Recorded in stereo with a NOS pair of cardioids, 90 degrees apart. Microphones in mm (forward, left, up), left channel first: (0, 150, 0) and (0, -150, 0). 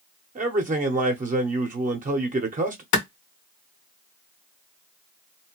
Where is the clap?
70° left, 1.3 m.